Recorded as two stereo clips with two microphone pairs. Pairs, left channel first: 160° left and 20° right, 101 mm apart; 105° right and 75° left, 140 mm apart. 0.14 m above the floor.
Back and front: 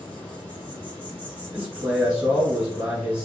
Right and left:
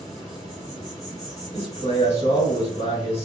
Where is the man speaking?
95° right, 1.5 m.